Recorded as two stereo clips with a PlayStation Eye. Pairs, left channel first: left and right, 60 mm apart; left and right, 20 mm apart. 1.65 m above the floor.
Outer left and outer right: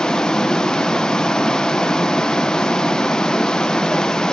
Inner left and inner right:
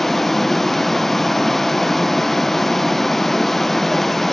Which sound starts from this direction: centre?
Running water, at 0.0 s.